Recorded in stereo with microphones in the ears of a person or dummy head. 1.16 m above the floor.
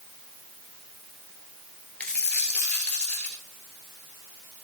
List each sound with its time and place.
2.0 s a dropped coin: 10° left (ahead or behind), 1.6 m